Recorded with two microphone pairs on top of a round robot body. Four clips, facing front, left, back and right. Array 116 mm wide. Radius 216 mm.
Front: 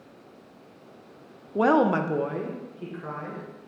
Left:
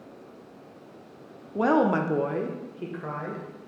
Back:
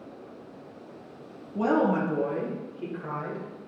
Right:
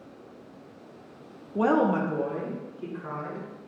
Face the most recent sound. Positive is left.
turn(degrees=95)